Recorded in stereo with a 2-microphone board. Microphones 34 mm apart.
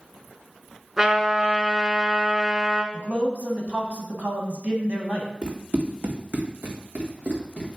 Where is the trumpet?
20° right (ahead or behind), 1.6 m.